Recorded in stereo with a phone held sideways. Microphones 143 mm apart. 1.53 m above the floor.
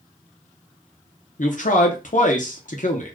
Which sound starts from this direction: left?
A man speaking, at 1.4 s.